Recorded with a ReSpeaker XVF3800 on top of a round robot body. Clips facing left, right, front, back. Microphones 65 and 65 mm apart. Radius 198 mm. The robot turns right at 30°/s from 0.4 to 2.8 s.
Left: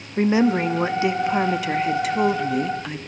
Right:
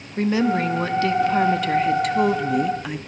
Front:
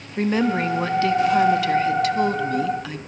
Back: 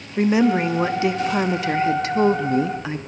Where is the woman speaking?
120° left, 1.0 m; by 3.0 s 170° right, 1.0 m.